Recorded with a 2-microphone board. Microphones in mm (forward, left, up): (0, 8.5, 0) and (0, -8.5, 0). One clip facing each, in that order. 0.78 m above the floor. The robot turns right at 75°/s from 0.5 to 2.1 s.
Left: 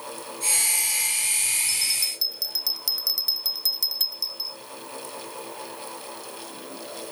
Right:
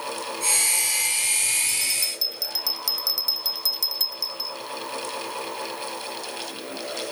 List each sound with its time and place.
1.7 s a bell: 150° left; by 4.6 s 175° right